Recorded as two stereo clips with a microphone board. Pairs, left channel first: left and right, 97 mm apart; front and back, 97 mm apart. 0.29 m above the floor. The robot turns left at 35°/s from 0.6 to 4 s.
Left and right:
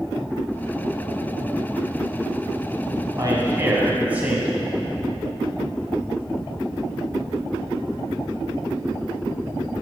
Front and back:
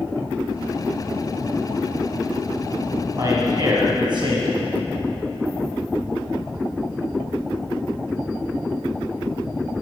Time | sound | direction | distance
3.2 | a man speaking | 130° right | 2.5 m